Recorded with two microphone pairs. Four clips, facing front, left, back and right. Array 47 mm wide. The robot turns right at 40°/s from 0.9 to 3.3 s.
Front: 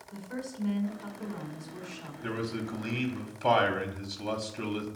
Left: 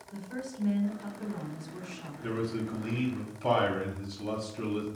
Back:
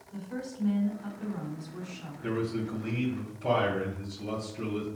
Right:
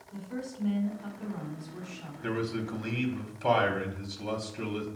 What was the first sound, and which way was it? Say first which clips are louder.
A woman speaking: right 1 dB, back 1 dB; 10° left.